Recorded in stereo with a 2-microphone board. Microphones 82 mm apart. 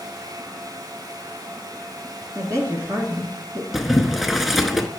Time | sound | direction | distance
2.4 | a woman speaking | 40° right (ahead or behind) | 1.4 m
3.7 | boiling | centre (ahead or behind) | 0.6 m